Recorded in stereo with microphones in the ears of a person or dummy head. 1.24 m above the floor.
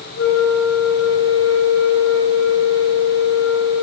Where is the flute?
60° left (ahead or behind), 3 m.